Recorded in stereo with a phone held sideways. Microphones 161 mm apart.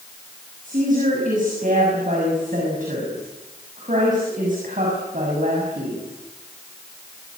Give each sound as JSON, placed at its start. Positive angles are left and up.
{"t": 0.6, "sound": "a woman speaking", "side_deg": -55, "distance_m": 6.5}